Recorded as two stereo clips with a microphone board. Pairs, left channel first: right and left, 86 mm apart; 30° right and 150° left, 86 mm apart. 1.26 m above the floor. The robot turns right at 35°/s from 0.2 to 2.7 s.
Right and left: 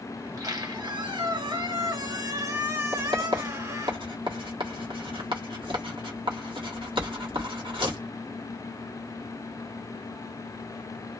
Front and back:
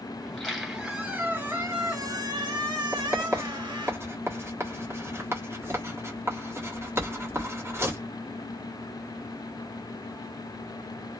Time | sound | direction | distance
0.2 | a squeak | 50° left | 2 m
2.9 | writing | 90° left | 1.4 m